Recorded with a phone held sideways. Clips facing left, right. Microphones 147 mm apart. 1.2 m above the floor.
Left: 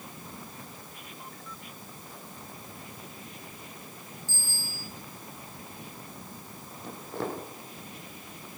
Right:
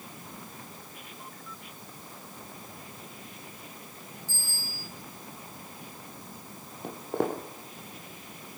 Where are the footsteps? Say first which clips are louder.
Right 5 dB; 60° right (ahead or behind), 2 m.